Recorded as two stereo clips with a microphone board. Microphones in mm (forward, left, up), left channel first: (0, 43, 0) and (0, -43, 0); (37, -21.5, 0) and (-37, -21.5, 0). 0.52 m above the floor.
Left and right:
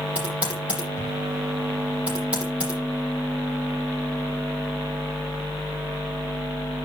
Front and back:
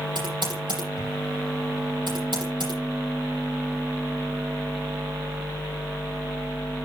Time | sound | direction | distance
0.1 | typing on a keyboard | 165° right | 9 m